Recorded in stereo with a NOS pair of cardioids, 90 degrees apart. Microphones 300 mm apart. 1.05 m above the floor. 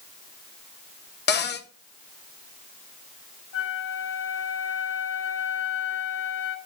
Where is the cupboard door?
35° left, 0.9 m.